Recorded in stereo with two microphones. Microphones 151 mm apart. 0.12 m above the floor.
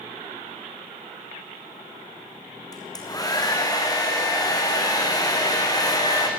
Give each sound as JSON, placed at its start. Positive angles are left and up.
{"t": 2.7, "sound": "a hair dryer", "side_deg": 25, "distance_m": 3.5}